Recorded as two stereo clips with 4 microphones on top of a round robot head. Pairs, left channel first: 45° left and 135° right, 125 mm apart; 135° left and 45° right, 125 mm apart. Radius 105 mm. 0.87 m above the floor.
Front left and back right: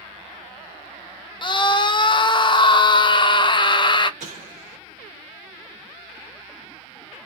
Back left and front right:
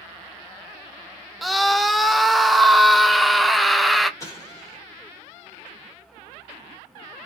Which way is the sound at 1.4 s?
45° left.